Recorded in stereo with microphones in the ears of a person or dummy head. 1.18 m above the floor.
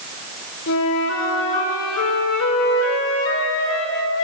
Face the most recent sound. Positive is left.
turn(degrees=75)  # may be behind; listen again after turning